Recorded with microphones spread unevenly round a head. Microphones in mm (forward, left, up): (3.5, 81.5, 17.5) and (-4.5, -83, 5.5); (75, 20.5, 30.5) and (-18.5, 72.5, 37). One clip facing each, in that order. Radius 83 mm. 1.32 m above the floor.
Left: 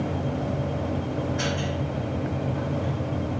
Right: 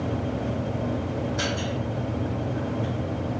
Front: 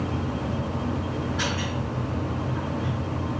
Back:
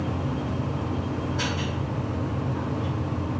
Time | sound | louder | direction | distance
0.0 | a machine running | even, even | 140° right | 1.4 m